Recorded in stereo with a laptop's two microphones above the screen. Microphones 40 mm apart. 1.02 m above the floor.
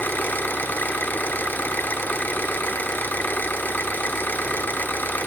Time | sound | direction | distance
0.0 | an engine running | 55° left (ahead or behind) | 0.9 m